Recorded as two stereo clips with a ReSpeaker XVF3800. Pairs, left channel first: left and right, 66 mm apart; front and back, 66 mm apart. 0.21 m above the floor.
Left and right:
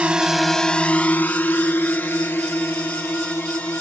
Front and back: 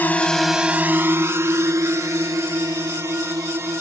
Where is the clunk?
I don't hear a clunk.